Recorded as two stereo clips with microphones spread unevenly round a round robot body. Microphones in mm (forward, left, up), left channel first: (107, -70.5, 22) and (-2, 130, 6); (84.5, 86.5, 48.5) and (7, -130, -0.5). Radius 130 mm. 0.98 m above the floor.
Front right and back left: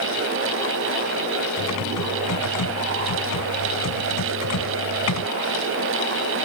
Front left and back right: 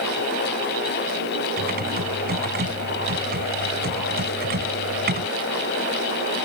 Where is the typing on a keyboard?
60° right.